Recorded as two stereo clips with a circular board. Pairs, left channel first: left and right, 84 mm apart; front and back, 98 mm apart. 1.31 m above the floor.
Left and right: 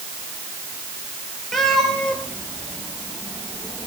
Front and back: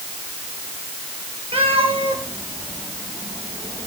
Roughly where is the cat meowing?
Behind.